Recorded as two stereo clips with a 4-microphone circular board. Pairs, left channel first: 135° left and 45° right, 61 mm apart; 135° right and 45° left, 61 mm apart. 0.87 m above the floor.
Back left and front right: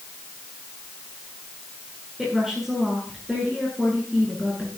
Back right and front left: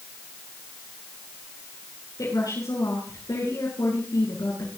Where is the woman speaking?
130° right, 9.5 m.